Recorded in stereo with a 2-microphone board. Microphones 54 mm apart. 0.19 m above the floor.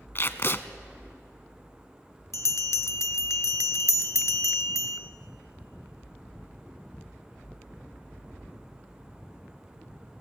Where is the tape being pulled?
45° left (ahead or behind), 0.7 m.